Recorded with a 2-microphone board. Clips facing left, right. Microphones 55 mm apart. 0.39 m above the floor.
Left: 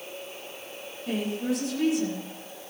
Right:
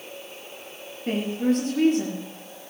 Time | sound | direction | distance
1.1 | a woman speaking | 45° right (ahead or behind) | 6.5 m